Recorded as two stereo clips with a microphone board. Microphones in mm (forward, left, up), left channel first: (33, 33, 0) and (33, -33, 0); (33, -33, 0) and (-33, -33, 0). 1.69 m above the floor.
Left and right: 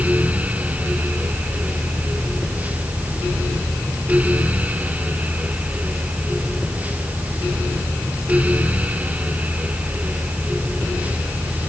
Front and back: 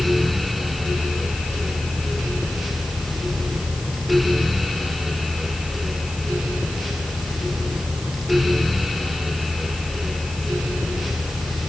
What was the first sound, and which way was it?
Only background noise.